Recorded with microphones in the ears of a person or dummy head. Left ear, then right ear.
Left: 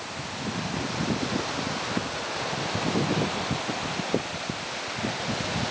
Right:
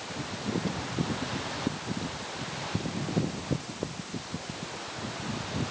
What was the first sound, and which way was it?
Only background noise.